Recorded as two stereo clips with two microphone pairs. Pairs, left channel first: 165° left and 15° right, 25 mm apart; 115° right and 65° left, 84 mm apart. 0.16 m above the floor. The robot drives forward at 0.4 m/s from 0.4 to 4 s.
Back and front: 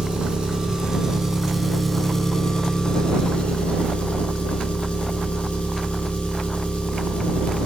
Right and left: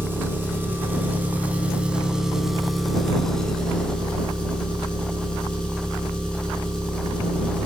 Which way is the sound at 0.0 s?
15° left.